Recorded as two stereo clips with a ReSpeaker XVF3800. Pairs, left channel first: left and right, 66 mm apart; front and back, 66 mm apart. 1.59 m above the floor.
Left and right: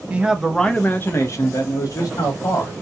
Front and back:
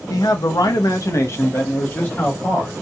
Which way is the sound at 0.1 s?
20° right.